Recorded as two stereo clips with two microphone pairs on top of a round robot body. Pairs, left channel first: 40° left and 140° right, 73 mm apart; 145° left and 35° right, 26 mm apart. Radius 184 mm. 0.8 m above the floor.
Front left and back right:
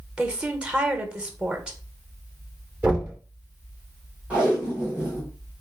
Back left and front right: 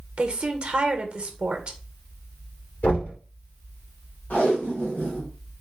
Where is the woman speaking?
70° right, 1.0 m.